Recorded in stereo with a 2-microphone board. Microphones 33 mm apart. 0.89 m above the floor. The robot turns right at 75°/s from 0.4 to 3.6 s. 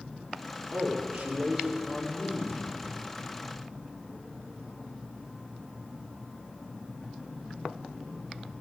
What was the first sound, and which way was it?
A man speaking, 60° right.